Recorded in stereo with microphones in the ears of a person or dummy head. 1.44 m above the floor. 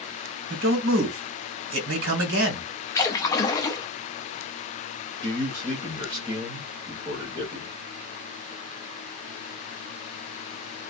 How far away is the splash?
About 0.5 m.